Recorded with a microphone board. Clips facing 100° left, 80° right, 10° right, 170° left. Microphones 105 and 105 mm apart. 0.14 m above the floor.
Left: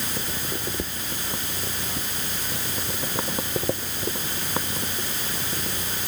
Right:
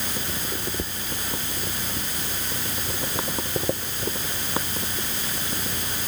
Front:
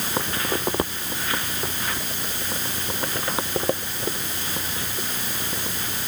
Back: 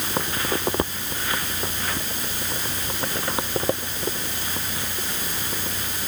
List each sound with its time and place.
Only background noise.